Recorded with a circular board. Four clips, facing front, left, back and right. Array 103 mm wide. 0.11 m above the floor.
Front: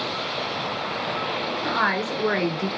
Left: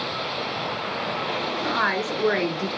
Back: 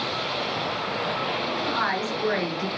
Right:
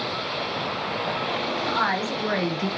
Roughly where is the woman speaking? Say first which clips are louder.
Left 1 dB, front 4 dB; ahead left.